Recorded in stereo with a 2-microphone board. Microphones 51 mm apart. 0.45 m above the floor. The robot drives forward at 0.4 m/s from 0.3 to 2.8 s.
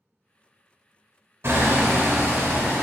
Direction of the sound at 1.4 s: 55° right (ahead or behind).